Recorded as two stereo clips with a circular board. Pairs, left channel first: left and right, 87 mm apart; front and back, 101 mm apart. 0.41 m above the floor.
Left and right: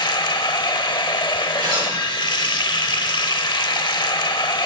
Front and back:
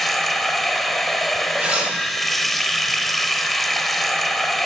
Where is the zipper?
105° right, 5 m.